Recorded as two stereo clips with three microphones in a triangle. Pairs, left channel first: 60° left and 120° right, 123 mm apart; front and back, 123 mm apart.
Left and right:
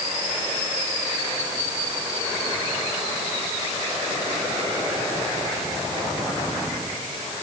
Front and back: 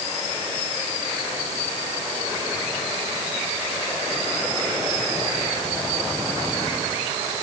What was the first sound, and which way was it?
Only background noise.